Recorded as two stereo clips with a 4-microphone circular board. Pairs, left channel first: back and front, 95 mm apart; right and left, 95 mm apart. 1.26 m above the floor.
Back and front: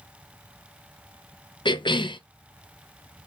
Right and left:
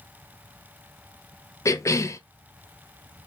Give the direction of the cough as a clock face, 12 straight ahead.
5 o'clock.